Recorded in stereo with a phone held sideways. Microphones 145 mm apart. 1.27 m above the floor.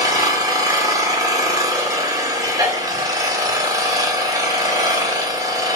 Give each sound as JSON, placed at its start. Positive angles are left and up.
{"t": 0.0, "sound": "an engine running", "side_deg": -25, "distance_m": 2.5}